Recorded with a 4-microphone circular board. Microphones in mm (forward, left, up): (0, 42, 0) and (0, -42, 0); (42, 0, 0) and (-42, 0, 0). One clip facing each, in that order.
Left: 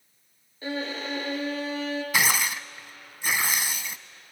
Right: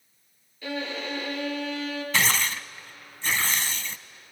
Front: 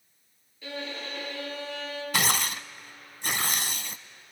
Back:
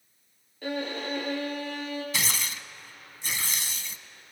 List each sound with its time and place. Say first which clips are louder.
0.6 s a violin: left 1 dB, back 5 dB; 145° left, 3.5 m
2.1 s tearing paper: even, front 5 dB; 15° left, 0.5 m